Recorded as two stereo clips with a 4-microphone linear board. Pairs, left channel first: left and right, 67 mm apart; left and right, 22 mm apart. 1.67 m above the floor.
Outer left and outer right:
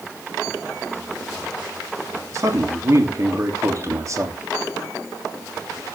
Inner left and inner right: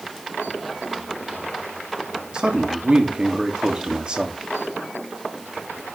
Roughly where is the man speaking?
Right.